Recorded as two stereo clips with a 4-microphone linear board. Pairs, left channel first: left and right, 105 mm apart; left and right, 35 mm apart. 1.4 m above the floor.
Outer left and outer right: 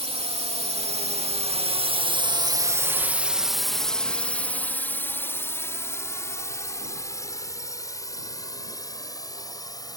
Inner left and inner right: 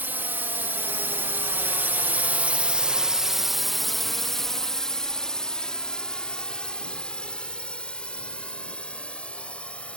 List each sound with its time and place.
0.0 s a drone: 70° right (ahead or behind); by 10.0 s 35° left (ahead or behind)